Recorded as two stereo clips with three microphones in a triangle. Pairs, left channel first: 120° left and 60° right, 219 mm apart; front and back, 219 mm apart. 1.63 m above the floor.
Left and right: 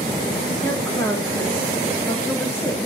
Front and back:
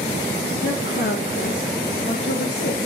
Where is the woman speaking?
40° left, 3 m.